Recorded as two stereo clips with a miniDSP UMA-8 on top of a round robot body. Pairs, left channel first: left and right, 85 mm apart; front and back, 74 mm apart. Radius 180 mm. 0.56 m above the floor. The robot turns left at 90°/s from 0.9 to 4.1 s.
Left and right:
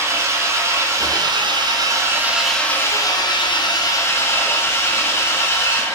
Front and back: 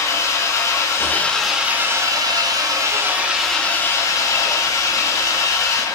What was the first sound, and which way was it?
An engine running, 40° right.